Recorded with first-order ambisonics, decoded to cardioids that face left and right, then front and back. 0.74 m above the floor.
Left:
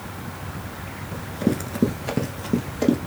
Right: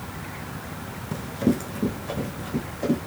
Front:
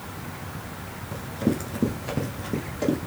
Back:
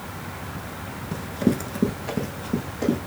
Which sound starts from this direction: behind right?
Running footsteps, at 1.1 s.